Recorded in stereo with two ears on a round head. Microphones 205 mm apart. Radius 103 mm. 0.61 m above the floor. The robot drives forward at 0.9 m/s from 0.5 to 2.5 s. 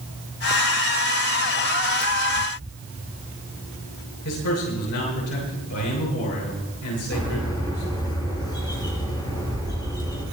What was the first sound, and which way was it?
A man speaking, 75° left (ahead or behind).